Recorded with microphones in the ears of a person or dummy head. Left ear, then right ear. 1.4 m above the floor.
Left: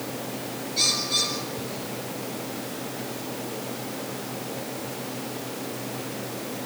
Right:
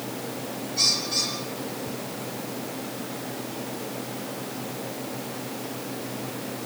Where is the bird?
35° left (ahead or behind), 8 m.